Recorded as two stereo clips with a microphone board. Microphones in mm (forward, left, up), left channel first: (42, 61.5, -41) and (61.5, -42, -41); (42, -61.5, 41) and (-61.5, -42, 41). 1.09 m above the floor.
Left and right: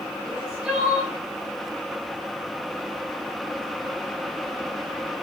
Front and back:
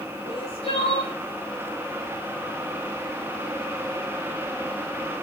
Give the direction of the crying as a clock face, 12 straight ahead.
12 o'clock.